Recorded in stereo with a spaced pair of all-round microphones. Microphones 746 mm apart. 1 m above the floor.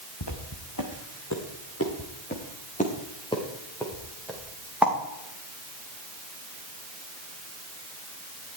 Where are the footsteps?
30° left (ahead or behind), 3 m; by 4.9 s centre (ahead or behind), 5 m.